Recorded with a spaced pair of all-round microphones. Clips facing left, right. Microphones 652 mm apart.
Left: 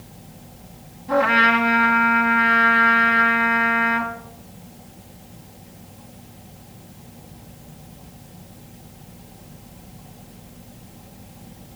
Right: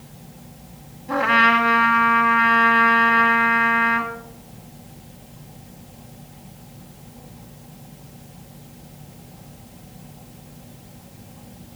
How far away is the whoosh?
I don't hear a whoosh.